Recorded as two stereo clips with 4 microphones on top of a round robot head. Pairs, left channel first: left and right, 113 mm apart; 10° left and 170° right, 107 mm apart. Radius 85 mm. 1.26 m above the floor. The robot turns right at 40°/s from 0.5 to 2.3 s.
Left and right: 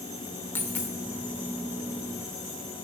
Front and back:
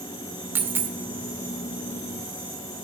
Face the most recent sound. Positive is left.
turn(degrees=-145)